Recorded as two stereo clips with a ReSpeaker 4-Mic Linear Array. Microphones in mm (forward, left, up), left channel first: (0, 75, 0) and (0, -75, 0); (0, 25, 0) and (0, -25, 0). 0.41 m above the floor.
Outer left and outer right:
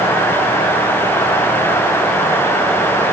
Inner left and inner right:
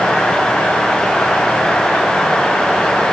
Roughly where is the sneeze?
No sneeze in this recording.